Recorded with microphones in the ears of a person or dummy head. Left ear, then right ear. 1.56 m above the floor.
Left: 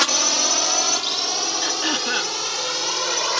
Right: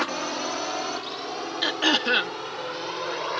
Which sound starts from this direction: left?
A drone, at 0.0 s.